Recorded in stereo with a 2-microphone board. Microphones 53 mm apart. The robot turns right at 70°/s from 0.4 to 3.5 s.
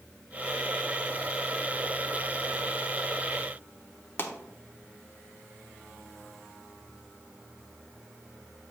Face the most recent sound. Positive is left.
turn(degrees=40)  # may be behind; listen again after turning